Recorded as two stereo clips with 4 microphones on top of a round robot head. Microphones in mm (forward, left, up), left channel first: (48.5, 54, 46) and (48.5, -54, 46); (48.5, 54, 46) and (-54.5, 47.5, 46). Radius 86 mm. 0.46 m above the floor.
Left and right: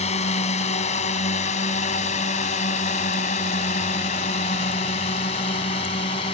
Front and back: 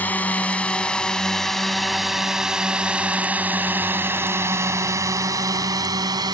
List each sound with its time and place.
0.0 s a drone: 75° left; by 6.3 s 135° left